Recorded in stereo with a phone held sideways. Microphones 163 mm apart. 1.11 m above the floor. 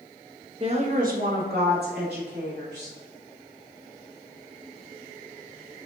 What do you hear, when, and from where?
0.6 s a woman speaking: 35° right (ahead or behind), 1.1 m; by 3.0 s 85° right, 3.5 m